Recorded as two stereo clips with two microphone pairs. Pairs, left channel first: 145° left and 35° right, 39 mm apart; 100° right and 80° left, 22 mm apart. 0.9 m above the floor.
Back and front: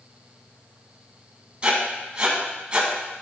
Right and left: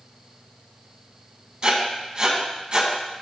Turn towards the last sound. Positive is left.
turn(degrees=35)